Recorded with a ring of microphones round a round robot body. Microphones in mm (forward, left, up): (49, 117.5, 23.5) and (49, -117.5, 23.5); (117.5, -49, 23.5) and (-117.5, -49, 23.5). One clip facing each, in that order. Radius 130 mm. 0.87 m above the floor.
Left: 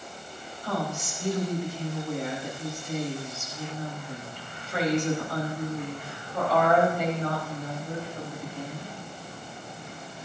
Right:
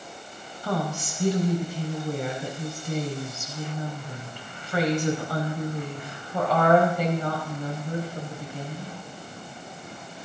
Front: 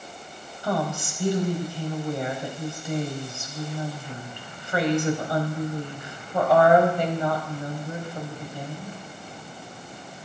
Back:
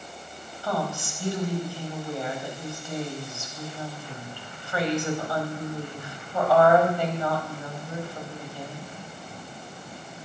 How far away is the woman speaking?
About 4.5 m.